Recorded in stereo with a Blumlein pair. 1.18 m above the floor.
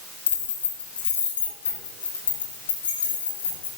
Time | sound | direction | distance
0.3 | keys jangling | 65° left | 2.5 m